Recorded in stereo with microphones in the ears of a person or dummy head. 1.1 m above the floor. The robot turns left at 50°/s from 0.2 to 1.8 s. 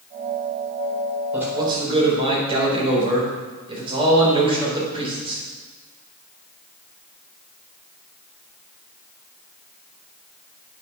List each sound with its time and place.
1.3 s a man speaking: 10° right (ahead or behind), 4.5 m; by 5.4 s 35° right (ahead or behind), 4.5 m